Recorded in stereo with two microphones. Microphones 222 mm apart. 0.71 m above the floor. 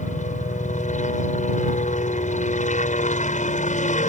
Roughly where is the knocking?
I don't hear knocking.